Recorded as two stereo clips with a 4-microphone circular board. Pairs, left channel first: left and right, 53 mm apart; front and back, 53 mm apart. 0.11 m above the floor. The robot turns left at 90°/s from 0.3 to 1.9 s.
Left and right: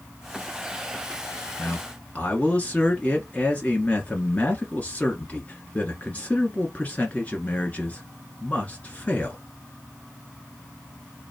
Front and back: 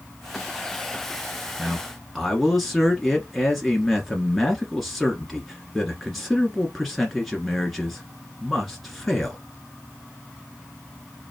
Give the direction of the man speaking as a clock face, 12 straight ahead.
8 o'clock.